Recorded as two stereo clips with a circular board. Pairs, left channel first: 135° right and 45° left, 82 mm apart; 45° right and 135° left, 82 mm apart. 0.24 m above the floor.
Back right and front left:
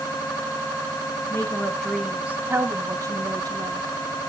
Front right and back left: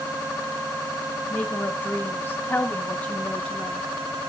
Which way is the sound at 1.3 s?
100° right.